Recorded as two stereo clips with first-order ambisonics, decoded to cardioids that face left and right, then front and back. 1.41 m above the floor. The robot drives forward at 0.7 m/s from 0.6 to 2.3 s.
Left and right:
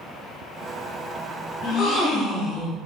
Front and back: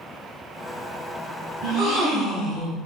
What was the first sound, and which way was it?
A gasp, 135° left.